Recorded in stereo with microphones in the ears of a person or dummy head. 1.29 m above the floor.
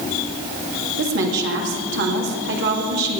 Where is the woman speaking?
65° right (ahead or behind), 2.5 m.